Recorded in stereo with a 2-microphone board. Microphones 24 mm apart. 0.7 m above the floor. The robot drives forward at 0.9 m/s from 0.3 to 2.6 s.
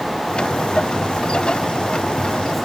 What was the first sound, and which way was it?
Only background noise.